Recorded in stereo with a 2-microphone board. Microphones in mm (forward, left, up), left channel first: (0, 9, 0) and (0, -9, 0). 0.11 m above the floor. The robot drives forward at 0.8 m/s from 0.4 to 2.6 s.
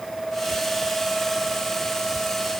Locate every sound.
Only background noise.